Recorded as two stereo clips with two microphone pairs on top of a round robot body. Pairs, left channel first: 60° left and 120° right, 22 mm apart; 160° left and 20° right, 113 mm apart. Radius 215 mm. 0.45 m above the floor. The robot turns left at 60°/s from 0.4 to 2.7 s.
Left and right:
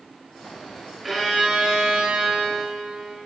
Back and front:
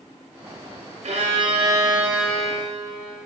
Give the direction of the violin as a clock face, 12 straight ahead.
1 o'clock.